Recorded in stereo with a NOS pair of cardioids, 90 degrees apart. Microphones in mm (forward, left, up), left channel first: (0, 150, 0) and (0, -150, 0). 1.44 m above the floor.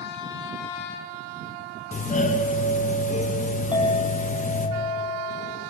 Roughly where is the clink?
Ahead.